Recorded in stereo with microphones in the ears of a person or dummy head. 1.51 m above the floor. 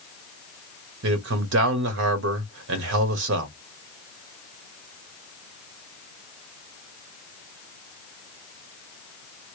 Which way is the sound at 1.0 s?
80° right.